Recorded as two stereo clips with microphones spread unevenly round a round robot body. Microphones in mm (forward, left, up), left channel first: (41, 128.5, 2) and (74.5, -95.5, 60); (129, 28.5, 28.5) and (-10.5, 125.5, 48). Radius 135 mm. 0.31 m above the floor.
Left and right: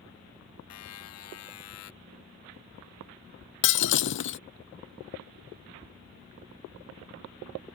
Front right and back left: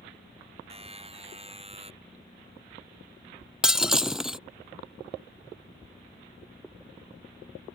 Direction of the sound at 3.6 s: 60° left.